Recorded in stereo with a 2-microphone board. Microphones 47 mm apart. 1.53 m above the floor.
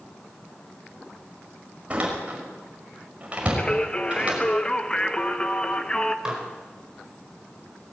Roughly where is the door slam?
Right.